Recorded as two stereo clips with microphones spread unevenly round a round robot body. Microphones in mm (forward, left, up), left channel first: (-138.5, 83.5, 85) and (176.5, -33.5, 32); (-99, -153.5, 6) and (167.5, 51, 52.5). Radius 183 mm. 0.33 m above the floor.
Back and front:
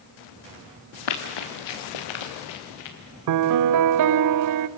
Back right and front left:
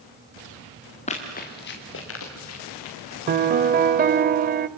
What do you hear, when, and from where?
1.1 s running footsteps: 145° left, 2.5 m; by 3.0 s 170° left, 4 m
3.3 s a piano: 30° right, 0.6 m